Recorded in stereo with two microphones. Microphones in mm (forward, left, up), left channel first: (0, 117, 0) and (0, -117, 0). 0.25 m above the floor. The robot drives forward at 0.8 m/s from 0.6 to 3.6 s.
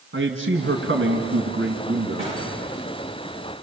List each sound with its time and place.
0.1 s a man speaking: 55° right (ahead or behind), 2.5 m
2.2 s a gunshot: 25° right (ahead or behind), 8.5 m